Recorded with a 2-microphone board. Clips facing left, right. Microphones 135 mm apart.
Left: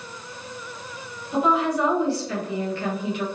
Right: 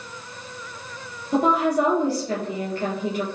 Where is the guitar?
No guitar in this recording.